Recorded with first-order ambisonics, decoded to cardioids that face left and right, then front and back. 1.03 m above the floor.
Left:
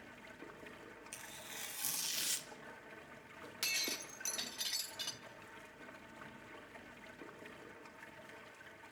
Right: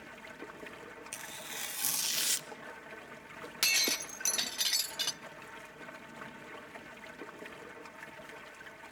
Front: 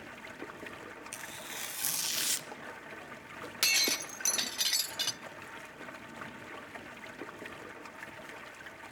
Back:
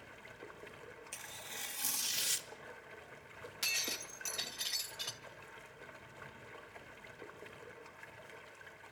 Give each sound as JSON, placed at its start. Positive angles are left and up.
{"t": 0.0, "sound": "running water", "azimuth_deg": -25, "distance_m": 1.3}
{"t": 1.1, "sound": "tearing paper", "azimuth_deg": -50, "distance_m": 0.8}
{"t": 3.6, "sound": "breaking glass", "azimuth_deg": -40, "distance_m": 0.7}